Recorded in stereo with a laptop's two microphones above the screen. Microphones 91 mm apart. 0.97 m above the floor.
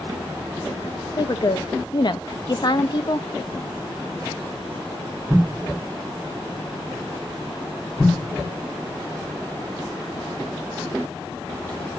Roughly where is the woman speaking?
Left.